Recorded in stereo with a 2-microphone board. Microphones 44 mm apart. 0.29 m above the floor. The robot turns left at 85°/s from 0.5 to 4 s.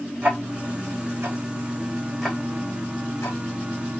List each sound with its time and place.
0.2 s ticking: 25° right (ahead or behind), 3 m; by 4.0 s 35° left (ahead or behind), 3 m